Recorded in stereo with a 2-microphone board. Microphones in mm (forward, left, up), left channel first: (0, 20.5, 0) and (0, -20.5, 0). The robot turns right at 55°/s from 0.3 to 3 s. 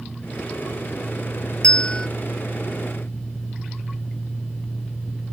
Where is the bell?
25° left (ahead or behind); by 2.1 s 20° left (ahead or behind).